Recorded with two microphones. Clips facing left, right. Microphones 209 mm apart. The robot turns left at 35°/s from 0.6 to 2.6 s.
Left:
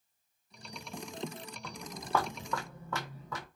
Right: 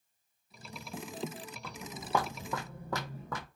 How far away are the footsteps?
About 1.1 m.